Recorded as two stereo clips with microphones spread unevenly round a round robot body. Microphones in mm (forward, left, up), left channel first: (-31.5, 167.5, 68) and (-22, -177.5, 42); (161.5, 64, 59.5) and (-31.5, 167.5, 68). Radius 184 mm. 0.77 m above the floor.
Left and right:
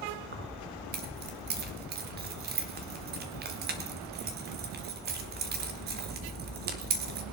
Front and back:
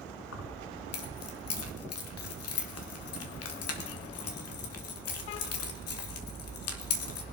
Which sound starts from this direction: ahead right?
Keys jangling, at 0.3 s.